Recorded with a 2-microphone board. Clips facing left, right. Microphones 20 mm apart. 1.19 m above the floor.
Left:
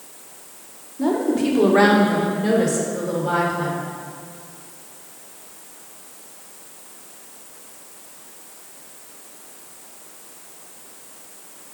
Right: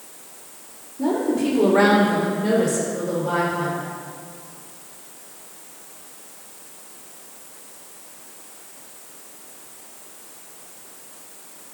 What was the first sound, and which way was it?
A woman speaking, 60° left (ahead or behind).